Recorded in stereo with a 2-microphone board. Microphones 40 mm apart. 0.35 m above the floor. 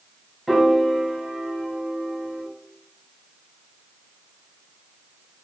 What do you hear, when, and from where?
0.5 s a piano: 5° right (ahead or behind), 1.0 m